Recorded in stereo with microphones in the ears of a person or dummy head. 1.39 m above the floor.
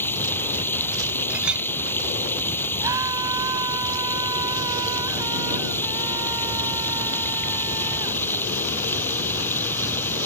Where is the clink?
5° right (ahead or behind).